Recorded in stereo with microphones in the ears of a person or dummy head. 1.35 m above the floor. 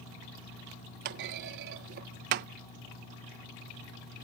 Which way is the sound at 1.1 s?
50° right (ahead or behind).